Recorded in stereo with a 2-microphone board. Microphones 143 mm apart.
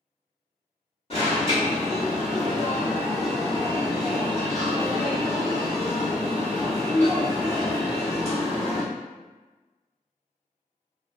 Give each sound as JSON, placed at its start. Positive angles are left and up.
{"t": 1.1, "sound": "an alarm", "side_deg": 40, "distance_m": 1.3}